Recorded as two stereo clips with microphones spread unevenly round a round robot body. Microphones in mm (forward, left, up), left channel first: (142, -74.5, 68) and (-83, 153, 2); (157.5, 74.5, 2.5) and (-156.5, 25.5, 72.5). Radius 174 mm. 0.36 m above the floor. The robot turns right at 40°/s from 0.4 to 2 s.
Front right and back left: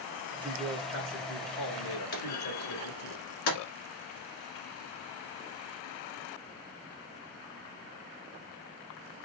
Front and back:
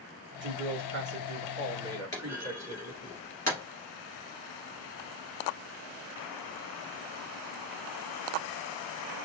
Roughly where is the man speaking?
Behind right.